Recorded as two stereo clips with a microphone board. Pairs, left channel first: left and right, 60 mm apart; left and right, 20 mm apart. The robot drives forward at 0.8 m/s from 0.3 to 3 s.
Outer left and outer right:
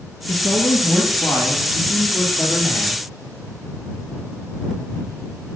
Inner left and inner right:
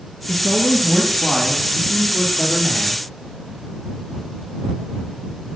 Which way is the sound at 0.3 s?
65° left (ahead or behind).